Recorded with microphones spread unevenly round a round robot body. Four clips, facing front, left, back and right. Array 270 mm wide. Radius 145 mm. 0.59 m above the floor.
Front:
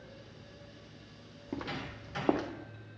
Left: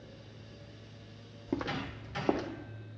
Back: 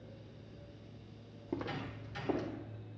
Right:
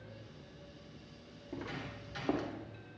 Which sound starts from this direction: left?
Footsteps, at 1.5 s.